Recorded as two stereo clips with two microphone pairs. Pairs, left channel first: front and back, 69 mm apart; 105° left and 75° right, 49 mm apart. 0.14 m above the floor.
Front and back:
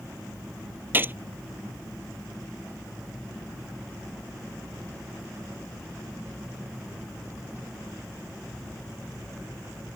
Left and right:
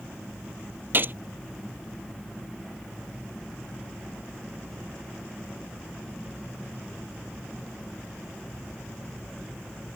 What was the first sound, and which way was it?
A gunshot, 120° right.